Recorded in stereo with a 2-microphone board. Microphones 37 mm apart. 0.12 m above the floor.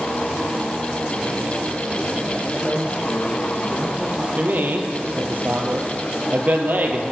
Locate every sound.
2.4 s a man speaking: 40° right (ahead or behind), 5 m; by 4.3 s 30° right (ahead or behind), 4.5 m
4.4 s a man speaking: 55° right (ahead or behind), 2 m